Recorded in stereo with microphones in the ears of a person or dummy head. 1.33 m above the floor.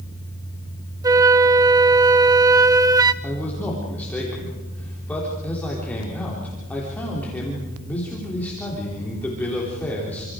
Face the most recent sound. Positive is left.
turn(degrees=10)  # may be behind; listen again after turning